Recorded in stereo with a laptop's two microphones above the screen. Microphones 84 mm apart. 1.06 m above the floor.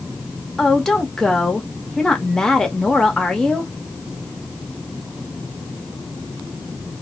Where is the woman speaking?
10° left (ahead or behind), 1.5 m.